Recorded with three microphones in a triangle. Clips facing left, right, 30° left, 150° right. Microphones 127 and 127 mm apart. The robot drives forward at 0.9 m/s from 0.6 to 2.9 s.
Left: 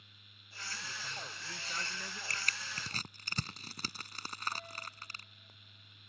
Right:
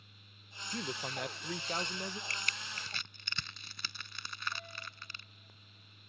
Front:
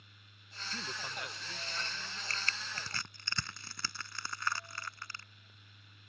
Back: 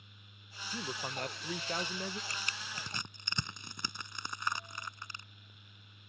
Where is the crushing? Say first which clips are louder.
Even, front 1 dB; 135° left; by 5.2 s 140° left.